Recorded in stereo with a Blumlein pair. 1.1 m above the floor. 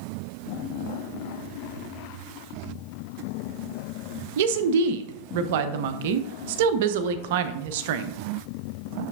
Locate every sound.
4.4 s a woman speaking: 50° right, 0.6 m